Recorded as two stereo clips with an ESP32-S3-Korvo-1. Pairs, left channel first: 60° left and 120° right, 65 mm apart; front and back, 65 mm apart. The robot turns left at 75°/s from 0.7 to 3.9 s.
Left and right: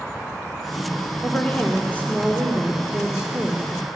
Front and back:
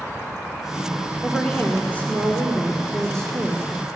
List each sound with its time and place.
1.2 s a woman speaking: 80° left, 1.5 m; by 3.7 s 105° right, 1.5 m